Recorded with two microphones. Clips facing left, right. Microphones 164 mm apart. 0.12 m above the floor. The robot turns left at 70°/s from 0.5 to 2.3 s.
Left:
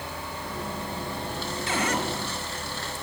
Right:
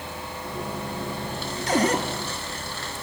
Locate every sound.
1.7 s a cupboard door: 40° right (ahead or behind), 1.8 m; by 2.0 s 30° right (ahead or behind), 1.8 m